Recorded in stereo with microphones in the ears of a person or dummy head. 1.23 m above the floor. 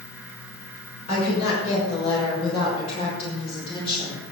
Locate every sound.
1.1 s a woman speaking: 30° left (ahead or behind), 6.5 m; by 4.2 s 20° left (ahead or behind), 4.5 m